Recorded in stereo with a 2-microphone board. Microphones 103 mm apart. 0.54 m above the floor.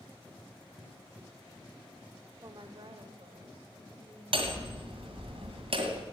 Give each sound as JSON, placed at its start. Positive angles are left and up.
{"t": 2.4, "sound": "a woman speaking", "side_deg": -45, "distance_m": 1.0}
{"t": 4.3, "sound": "hammering", "side_deg": -65, "distance_m": 1.9}